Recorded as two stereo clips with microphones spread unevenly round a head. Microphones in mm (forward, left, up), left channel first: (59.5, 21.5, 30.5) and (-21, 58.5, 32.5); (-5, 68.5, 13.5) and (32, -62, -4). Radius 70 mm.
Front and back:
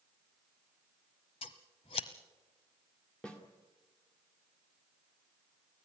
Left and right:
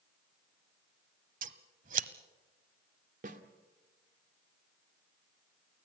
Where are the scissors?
65° right, 1.1 m.